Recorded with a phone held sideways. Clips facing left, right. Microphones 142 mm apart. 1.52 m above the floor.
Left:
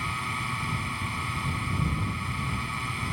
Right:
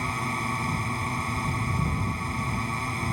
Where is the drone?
40° right (ahead or behind).